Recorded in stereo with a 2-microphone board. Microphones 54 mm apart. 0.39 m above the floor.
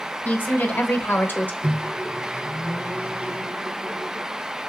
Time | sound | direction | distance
0.2 | a woman speaking | 40° left (ahead or behind) | 1.7 m
1.6 | a microwave | 30° right (ahead or behind) | 0.7 m